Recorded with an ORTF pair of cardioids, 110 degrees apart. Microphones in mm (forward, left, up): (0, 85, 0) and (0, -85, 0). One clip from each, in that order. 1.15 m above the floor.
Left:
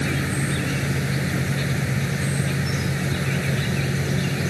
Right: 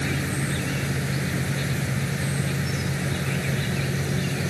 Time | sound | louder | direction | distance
0.0 | an insect | left 2 dB | 15° left | ?